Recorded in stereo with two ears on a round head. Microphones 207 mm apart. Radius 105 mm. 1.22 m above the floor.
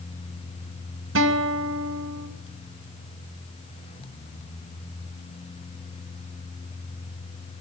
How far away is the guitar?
About 2.5 m.